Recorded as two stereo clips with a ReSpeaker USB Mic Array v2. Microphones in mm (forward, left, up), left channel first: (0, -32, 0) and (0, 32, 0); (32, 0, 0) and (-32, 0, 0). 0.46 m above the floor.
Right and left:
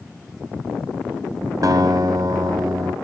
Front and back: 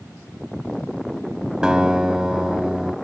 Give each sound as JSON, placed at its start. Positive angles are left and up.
{"t": 1.6, "sound": "a guitar", "azimuth_deg": 105, "distance_m": 0.8}